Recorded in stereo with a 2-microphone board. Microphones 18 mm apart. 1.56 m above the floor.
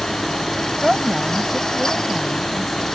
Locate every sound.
0.8 s a woman speaking: 10° right (ahead or behind)